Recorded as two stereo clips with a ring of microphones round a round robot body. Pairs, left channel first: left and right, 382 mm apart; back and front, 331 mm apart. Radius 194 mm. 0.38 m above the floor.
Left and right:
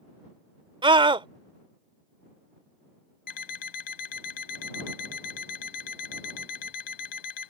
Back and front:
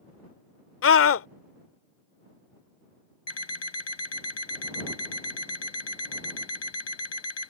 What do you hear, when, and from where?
0.8 s a scream: 160° right
3.3 s an alarm clock: 130° left